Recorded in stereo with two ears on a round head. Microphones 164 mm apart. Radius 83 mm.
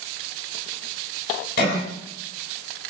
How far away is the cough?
About 5.5 m.